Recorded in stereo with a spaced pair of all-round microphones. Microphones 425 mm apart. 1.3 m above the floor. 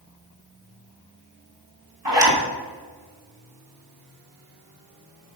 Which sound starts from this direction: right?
A zipper, at 2.0 s.